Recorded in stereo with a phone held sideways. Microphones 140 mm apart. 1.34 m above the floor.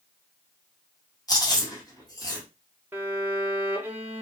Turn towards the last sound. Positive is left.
turn(degrees=-15)  # may be behind; listen again after turning